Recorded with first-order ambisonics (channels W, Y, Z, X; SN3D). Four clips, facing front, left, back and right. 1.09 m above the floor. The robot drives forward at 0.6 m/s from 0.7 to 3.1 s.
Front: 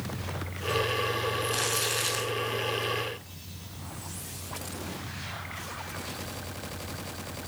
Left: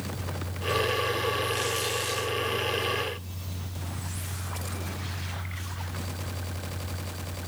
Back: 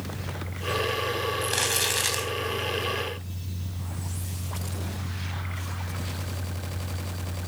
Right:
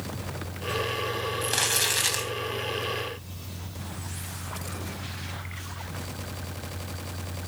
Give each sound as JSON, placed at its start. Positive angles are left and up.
{"t": 1.4, "sound": "crumpling", "azimuth_deg": -130, "distance_m": 3.0}